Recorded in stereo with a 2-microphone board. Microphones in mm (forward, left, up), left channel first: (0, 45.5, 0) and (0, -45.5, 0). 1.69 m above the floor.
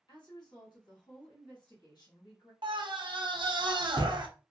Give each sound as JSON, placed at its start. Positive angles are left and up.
{"t": 0.1, "sound": "a woman speaking", "side_deg": 50, "distance_m": 1.4}
{"t": 2.6, "sound": "a scream", "side_deg": -60, "distance_m": 0.7}